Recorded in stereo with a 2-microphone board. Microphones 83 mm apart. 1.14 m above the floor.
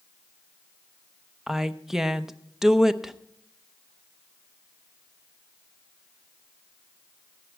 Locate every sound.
1.5 s a woman speaking: 5° right (ahead or behind), 0.7 m